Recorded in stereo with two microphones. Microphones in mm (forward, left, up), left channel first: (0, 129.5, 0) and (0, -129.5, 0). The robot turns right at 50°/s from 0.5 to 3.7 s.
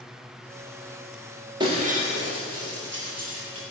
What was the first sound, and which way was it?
Breaking glass, 20° right (ahead or behind).